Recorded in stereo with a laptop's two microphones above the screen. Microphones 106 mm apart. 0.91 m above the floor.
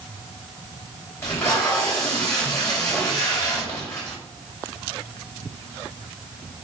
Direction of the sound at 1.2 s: 20° left (ahead or behind).